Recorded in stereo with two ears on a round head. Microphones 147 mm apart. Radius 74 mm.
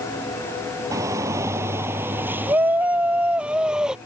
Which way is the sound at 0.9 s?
20° right (ahead or behind).